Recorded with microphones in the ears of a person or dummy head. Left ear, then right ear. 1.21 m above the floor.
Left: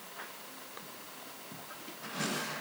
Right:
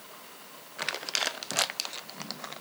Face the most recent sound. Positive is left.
No sound to turn to.